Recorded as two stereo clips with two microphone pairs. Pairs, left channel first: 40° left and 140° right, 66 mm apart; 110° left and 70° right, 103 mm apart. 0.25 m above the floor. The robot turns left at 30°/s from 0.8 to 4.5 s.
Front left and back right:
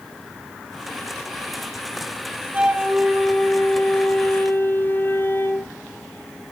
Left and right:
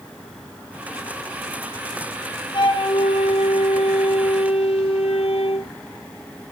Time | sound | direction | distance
2.5 | a flute | 155° left | 1.6 m